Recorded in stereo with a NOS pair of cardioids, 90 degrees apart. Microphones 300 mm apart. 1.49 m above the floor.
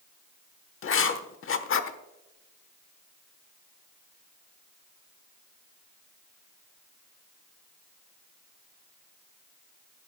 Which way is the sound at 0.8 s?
45° left.